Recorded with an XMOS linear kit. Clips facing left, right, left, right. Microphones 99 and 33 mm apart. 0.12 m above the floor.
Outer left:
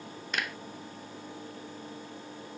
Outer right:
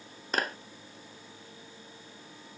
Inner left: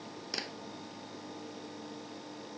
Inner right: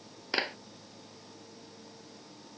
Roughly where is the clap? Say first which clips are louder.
Outer right 4 dB, inner right 9 dB; right.